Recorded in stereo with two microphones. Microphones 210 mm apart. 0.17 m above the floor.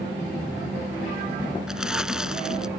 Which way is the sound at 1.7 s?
5° right (ahead or behind).